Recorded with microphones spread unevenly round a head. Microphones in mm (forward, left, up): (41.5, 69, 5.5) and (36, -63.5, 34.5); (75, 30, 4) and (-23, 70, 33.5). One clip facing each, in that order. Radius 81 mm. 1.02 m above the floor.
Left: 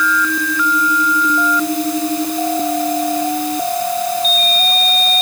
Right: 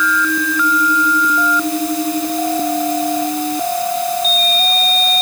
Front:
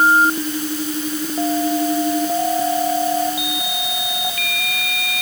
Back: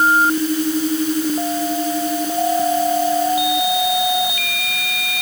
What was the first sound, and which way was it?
Only background noise.